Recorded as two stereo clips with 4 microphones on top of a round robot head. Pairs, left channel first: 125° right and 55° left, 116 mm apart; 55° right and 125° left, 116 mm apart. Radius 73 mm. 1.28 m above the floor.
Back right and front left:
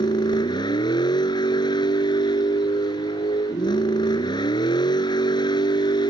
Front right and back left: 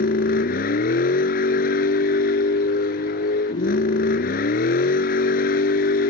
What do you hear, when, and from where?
0.0 s a vehicle: 65° right